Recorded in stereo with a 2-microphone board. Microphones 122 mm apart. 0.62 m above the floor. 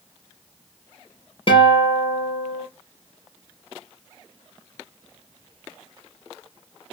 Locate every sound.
1.5 s a guitar: 45° left (ahead or behind), 2.5 m